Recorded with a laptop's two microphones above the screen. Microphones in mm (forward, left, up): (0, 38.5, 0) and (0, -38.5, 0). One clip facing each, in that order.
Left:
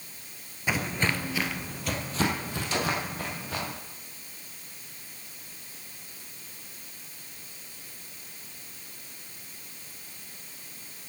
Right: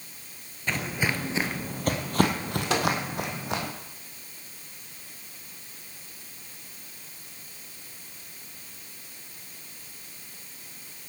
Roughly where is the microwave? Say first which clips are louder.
Right 4 dB; right.